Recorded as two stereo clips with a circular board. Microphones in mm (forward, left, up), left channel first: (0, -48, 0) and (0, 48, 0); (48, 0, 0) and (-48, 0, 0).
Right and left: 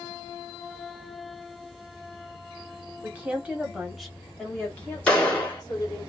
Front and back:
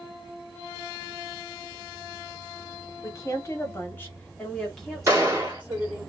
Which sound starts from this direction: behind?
A gunshot, at 5.1 s.